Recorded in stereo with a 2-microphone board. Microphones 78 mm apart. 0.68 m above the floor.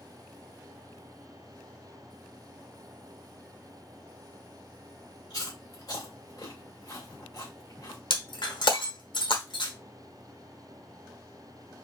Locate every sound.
5.3 s chewing: 60° left (ahead or behind), 2.5 m
8.1 s breaking glass: 85° left, 1.0 m